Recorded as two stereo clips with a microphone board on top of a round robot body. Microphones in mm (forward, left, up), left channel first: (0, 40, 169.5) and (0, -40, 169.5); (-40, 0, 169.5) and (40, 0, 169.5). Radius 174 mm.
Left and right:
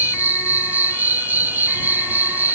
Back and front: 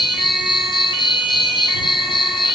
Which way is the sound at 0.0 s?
160° right.